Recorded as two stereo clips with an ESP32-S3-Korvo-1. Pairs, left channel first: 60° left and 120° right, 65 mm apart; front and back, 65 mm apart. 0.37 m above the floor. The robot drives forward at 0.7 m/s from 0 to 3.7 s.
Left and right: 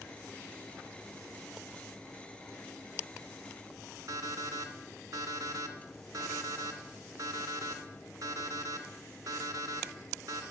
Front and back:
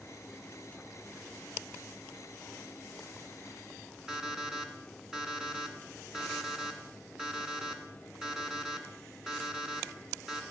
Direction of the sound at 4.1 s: 100° right.